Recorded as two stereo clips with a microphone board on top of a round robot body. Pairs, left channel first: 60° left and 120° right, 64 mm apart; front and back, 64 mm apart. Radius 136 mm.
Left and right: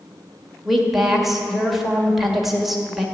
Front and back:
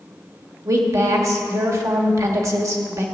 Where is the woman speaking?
155° left, 2 m.